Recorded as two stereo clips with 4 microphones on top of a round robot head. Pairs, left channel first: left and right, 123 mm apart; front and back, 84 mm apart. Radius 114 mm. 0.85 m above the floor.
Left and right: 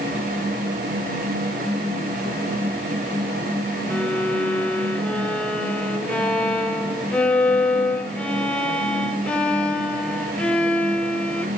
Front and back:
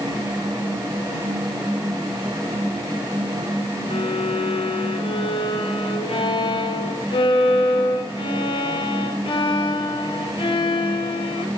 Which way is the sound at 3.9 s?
10° left.